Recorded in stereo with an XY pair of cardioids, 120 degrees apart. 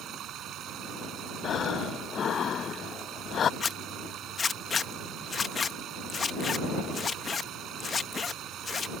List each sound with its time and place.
0.0 s running water: 65° right
1.4 s breathing: 40° left
3.6 s a zipper: 30° left